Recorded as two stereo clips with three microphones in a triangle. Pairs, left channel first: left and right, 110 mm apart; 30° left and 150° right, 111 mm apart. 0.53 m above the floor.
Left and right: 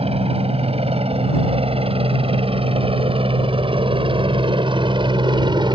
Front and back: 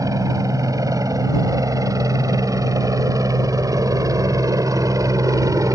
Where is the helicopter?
95° right; by 5.8 s 105° right.